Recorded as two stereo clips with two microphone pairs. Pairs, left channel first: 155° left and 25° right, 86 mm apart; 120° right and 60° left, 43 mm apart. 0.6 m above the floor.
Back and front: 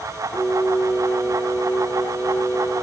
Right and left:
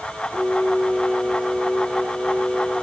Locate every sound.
0.3 s singing: 175° left, 3 m